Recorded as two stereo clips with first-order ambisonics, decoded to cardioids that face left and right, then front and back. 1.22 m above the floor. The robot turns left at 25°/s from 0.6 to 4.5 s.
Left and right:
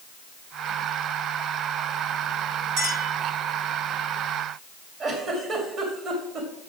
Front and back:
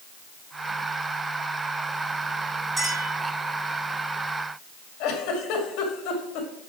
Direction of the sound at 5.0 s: 35° right.